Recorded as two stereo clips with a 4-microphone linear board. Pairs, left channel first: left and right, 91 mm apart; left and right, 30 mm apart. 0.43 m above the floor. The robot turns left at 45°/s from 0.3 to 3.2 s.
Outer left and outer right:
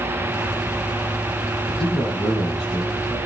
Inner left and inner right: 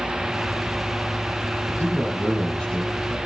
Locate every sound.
1.7 s a man speaking: 80° left, 7.5 m; by 3.2 s 15° left, 7.5 m